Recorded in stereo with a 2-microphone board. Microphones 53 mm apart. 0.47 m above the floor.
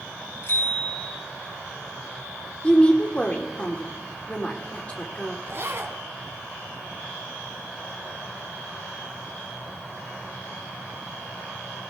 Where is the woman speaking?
20° left (ahead or behind), 1.4 m.